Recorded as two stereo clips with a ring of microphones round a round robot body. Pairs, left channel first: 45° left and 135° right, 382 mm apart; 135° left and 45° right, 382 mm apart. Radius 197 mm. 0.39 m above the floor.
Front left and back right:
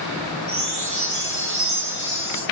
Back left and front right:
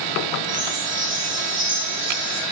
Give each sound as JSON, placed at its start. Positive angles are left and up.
{"t": 0.5, "sound": "a chime", "azimuth_deg": -95, "distance_m": 3.5}